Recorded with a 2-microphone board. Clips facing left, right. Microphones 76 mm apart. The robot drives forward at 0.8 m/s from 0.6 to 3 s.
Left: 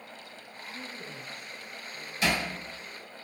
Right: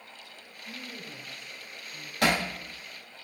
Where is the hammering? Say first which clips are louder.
Right 3 dB; 60° right (ahead or behind), 2.5 m.